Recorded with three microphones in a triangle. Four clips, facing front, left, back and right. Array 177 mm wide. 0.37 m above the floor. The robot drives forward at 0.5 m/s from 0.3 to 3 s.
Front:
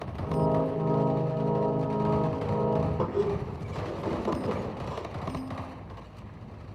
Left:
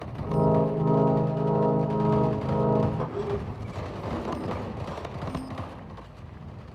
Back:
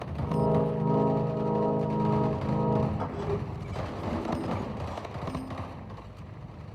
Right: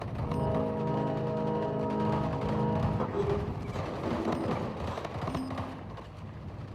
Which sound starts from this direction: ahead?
A squeak, at 3.0 s.